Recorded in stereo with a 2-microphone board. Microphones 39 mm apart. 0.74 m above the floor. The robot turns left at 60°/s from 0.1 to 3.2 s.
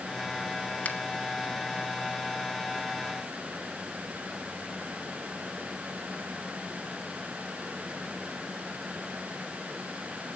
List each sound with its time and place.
0.8 s a finger snap: 45° left (ahead or behind), 1.4 m; by 1.0 s 40° left (ahead or behind), 1.4 m